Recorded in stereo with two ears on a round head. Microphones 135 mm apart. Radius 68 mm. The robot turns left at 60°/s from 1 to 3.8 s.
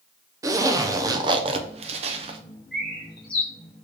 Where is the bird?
Centre (ahead or behind), 1.3 m; by 3.5 s 45° left (ahead or behind), 1.3 m.